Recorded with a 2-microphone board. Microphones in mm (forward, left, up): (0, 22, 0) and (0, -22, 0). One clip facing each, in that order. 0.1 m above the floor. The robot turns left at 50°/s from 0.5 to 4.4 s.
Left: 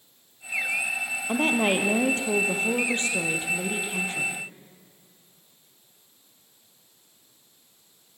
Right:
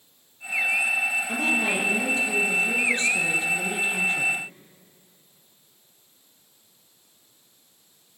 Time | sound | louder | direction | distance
1.3 | a woman speaking | left 5 dB | 135° left | 3.5 m